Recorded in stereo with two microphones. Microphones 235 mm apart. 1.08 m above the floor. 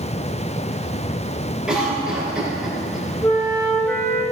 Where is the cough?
5° right (ahead or behind), 3.5 m.